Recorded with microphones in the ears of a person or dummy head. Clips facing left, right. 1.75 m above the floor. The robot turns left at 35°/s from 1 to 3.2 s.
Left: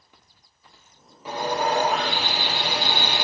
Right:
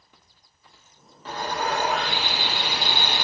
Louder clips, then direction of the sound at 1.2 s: Left 3 dB; 165° left.